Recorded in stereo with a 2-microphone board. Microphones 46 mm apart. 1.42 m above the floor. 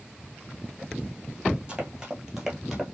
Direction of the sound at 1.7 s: 15° right (ahead or behind).